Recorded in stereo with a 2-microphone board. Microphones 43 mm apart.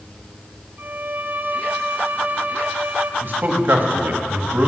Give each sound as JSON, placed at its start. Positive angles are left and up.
{"t": 0.8, "sound": "a violin", "side_deg": -45, "distance_m": 0.6}
{"t": 3.2, "sound": "a man speaking", "side_deg": -50, "distance_m": 1.4}